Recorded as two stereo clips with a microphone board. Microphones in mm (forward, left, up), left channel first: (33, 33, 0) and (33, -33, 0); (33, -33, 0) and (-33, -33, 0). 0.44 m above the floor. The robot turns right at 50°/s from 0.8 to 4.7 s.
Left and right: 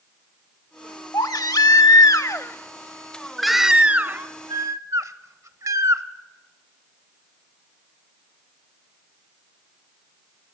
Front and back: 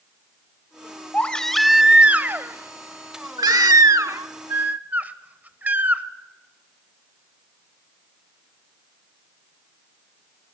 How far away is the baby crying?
About 0.8 m.